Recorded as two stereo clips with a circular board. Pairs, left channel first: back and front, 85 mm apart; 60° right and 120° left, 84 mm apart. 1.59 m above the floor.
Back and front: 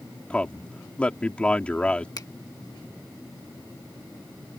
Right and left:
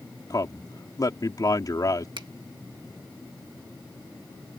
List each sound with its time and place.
0.3 s a man speaking: 105° right
2.2 s a finger snap: 140° left